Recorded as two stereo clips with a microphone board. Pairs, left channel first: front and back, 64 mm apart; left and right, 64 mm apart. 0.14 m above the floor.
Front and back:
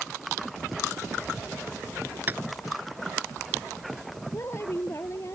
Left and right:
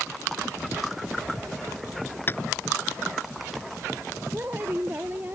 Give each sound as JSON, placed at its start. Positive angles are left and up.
{"t": 2.3, "sound": "tapping", "azimuth_deg": 130}
{"t": 4.3, "sound": "a woman speaking", "azimuth_deg": -35}